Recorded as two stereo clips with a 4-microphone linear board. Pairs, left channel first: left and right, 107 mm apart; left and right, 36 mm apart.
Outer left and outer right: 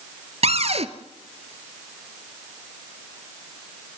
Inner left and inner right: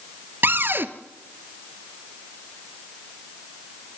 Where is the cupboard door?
75° right (ahead or behind), 1.1 m.